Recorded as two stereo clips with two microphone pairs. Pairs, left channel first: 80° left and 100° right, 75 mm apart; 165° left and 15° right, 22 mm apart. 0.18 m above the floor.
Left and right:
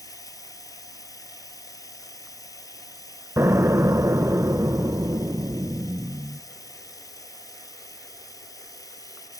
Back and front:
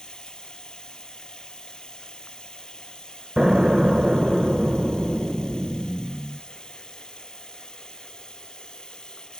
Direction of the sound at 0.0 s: 115° left.